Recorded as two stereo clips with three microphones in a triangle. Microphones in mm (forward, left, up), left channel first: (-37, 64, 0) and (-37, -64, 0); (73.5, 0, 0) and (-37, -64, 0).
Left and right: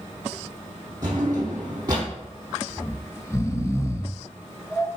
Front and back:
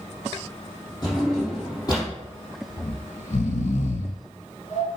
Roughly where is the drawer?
Ahead right.